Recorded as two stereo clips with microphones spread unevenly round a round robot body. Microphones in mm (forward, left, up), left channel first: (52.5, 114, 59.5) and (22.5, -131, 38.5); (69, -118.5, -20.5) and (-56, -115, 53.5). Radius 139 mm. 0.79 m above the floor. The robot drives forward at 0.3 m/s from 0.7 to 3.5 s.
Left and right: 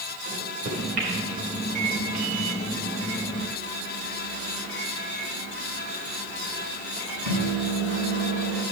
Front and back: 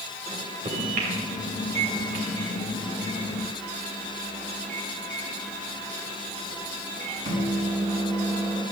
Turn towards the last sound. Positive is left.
turn(degrees=-165)